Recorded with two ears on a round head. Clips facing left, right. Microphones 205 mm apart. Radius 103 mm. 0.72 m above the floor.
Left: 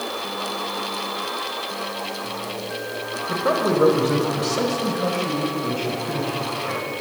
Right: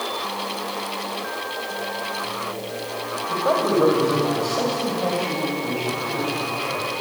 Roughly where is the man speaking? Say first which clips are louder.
Even; left.